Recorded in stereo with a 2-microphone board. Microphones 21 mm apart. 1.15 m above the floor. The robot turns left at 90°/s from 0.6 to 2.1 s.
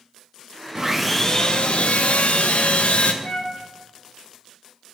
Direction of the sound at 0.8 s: 155° right.